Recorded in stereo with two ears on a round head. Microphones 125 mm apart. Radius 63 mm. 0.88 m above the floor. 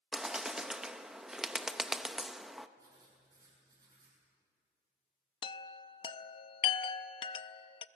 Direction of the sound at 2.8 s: 30° right (ahead or behind).